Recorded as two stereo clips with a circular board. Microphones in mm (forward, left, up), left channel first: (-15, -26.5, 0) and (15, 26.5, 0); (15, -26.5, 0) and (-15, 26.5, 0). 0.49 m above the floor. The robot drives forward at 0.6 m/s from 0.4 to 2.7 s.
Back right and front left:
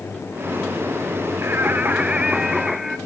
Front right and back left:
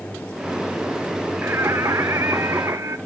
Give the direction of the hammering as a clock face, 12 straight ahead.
No hammering in this recording.